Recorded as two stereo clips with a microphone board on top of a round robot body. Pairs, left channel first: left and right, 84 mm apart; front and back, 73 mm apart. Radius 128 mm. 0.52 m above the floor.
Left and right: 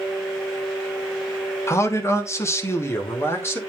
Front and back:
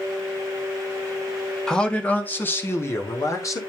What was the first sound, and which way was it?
A man speaking, 75° left.